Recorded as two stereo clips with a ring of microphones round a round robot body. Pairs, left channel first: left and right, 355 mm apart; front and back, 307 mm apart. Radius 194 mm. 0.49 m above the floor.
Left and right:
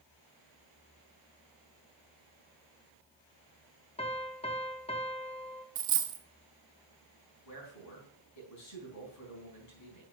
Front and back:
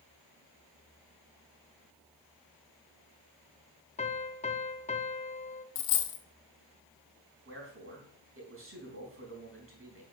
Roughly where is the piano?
Ahead left.